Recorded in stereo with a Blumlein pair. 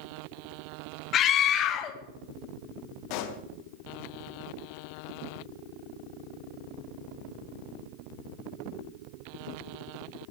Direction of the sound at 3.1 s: 40° left.